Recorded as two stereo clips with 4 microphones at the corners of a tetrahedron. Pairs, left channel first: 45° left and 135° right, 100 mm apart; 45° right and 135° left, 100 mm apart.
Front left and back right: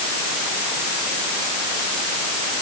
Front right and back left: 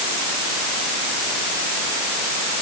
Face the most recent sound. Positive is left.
No sound to turn to.